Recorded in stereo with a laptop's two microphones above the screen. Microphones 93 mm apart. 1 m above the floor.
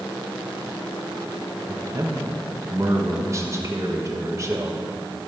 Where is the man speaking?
30° right (ahead or behind), 1.3 m.